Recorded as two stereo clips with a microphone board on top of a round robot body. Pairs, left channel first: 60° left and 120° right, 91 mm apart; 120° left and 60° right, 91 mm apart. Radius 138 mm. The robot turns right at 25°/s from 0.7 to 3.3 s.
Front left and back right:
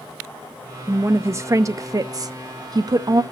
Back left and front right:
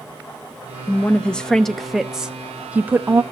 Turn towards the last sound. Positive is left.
turn(degrees=-115)